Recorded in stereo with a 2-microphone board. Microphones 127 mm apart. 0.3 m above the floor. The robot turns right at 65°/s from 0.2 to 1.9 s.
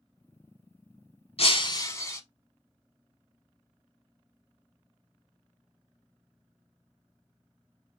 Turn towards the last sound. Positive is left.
turn(degrees=155)